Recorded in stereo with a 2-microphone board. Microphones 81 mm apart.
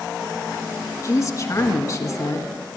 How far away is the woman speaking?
About 1.5 m.